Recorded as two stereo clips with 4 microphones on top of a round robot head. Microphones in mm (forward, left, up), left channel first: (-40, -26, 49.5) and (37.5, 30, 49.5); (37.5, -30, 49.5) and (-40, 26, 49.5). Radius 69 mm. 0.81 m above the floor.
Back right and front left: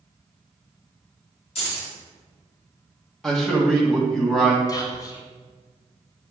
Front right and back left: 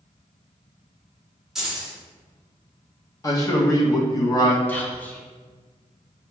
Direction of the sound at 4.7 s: 105° right.